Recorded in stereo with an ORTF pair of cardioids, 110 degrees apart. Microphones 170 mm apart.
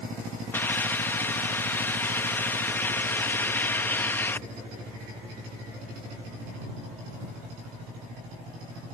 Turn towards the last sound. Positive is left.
turn(degrees=15)